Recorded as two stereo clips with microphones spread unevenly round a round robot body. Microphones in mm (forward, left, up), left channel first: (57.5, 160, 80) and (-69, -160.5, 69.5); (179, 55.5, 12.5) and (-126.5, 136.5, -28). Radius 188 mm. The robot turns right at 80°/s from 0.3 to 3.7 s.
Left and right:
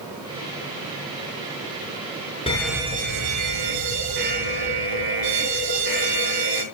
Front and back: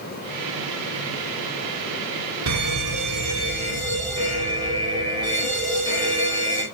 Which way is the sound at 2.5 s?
140° left.